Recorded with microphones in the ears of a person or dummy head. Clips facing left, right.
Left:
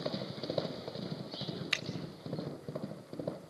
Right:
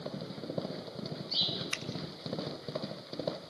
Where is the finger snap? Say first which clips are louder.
Even; 20° left (ahead or behind), 0.8 m.